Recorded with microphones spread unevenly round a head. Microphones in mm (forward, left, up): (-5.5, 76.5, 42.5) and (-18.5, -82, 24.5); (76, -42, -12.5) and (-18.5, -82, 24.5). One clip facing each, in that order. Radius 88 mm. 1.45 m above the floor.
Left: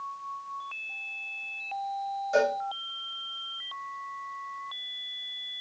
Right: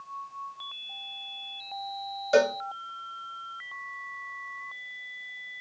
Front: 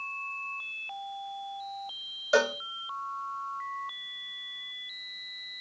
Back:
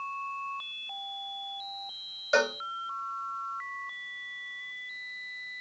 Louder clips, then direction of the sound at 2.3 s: Right 3 dB, front 1 dB; 70° right.